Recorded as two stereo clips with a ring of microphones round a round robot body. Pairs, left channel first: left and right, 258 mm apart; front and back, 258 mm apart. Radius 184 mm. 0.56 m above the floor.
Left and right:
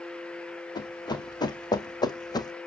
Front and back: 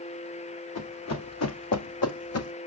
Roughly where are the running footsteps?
Ahead.